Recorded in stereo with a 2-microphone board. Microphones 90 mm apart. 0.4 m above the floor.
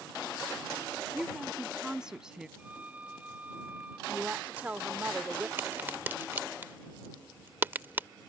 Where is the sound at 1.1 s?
10° right (ahead or behind).